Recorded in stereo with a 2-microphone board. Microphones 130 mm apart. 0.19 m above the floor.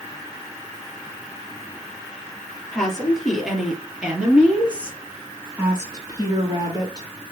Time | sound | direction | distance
2.7 | a woman speaking | 5° left (ahead or behind) | 4 m